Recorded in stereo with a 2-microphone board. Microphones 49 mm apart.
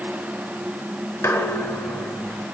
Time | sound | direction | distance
1.2 | dishes clattering | 80° left | 6 m